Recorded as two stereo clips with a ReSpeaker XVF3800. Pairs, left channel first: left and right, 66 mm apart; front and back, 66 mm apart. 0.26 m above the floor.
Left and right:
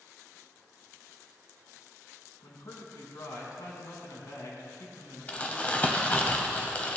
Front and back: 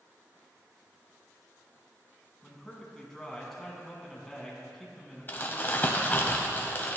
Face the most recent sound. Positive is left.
turn(degrees=35)